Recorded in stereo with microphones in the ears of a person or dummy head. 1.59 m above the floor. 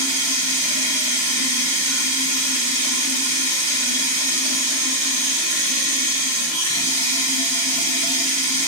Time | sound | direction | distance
0.0 | running water | 85° right | 6 m